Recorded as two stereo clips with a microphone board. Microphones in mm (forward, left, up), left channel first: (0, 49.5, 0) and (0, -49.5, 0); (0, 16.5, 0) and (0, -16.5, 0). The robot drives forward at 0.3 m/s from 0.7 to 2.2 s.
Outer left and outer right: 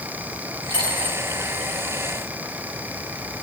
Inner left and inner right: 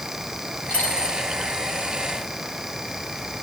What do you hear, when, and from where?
0.7 s a dropped coin: 50° left (ahead or behind), 5 m